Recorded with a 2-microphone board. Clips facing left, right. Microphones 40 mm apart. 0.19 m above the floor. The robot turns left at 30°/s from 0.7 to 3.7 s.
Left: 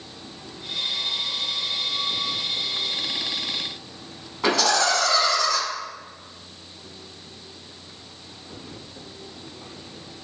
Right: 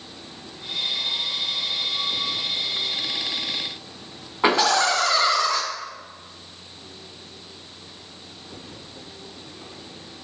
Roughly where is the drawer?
No drawer in this recording.